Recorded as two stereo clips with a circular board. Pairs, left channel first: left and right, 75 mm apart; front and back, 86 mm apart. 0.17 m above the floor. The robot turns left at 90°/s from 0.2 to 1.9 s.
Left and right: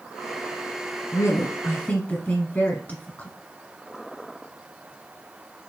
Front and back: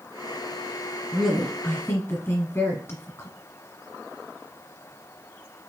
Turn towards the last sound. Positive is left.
turn(degrees=35)